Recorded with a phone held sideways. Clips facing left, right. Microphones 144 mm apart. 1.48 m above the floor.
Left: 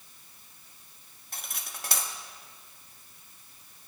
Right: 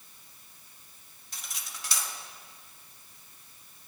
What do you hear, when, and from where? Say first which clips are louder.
1.3 s cutlery clinking: left 2 dB; 55° left (ahead or behind), 1.5 m